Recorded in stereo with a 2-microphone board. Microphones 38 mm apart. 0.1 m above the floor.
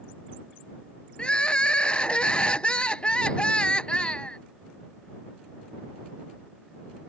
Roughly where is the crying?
Left.